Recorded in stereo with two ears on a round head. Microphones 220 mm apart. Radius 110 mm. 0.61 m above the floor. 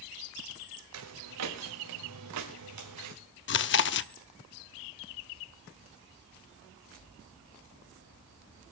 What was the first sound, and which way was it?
Footsteps, 75° right (ahead or behind).